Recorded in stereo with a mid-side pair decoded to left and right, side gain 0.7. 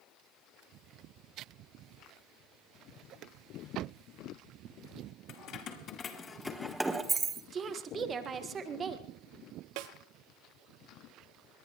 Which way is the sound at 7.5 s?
30° right.